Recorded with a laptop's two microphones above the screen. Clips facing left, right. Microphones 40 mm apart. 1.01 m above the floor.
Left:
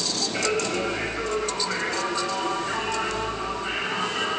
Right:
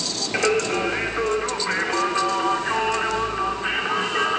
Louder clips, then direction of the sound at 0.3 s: Right 5 dB; 70° right (ahead or behind).